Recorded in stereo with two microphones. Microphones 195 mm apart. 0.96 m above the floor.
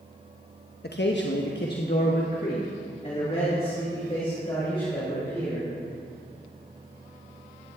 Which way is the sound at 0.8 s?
55° left (ahead or behind).